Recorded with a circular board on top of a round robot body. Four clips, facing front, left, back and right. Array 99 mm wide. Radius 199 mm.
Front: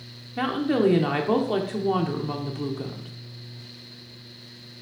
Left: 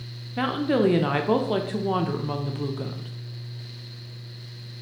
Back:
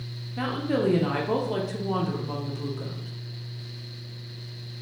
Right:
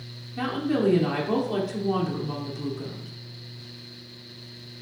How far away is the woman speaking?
About 0.9 m.